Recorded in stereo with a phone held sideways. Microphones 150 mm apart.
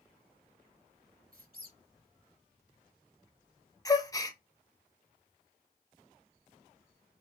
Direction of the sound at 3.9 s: 25° left (ahead or behind).